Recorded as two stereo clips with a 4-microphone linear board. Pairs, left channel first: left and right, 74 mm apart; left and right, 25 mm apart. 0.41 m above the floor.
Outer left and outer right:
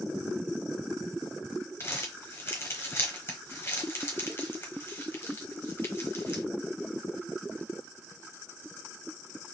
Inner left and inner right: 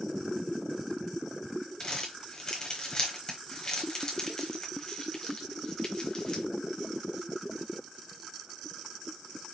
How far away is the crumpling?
About 1.2 m.